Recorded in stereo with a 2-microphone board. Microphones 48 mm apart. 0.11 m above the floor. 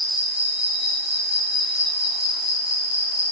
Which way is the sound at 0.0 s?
15° right (ahead or behind).